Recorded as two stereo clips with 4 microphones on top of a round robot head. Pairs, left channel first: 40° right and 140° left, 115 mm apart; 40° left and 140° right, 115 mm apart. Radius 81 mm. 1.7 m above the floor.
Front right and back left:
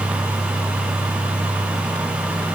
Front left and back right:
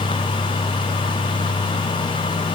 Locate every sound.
Only background noise.